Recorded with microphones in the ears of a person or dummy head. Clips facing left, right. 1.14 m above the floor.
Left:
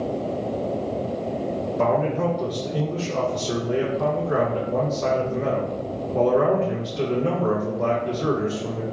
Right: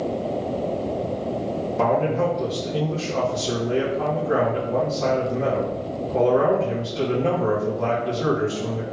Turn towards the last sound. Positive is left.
turn(degrees=-75)  # may be behind; listen again after turning